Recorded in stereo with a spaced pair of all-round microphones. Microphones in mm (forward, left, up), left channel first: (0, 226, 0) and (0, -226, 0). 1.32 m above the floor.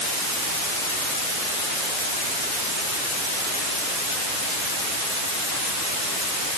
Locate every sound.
Only background noise.